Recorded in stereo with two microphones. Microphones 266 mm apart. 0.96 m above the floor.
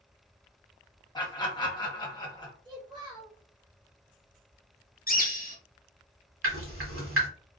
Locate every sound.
1.1 s laughter: 15° left (ahead or behind), 1.2 m
2.6 s a child speaking: 15° right (ahead or behind), 1.1 m
5.1 s a bird: 35° left (ahead or behind), 0.6 m
6.4 s dripping: 55° right (ahead or behind), 1.1 m